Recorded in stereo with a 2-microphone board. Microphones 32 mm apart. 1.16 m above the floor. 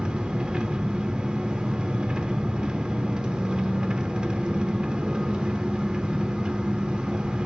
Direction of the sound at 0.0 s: 30° right (ahead or behind).